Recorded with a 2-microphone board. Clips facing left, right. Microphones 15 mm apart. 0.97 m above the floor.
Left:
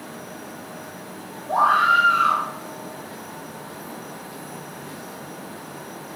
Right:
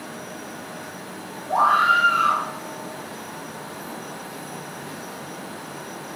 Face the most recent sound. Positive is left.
turn(degrees=30)  # may be behind; listen again after turning